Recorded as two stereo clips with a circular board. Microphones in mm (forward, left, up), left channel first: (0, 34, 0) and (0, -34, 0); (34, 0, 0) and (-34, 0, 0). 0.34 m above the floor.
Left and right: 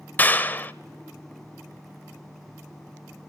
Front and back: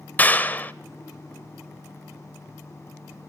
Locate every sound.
0.2 s a clap: 45° left, 0.8 m